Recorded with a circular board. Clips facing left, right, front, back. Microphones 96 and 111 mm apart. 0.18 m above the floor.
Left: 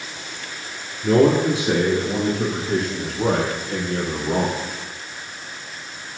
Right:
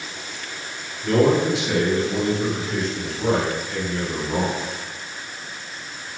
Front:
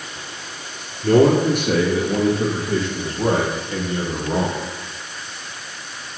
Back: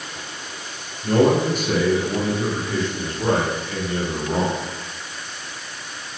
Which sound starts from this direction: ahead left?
A man speaking, at 1.0 s.